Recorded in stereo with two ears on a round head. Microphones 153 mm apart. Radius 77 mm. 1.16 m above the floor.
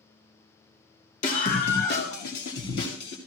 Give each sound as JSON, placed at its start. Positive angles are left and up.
{"t": 1.2, "sound": "a scream", "side_deg": 45, "distance_m": 1.6}